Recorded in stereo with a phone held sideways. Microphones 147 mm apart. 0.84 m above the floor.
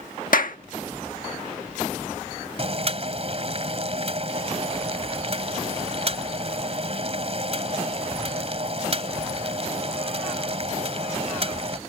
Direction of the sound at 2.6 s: 45° right (ahead or behind).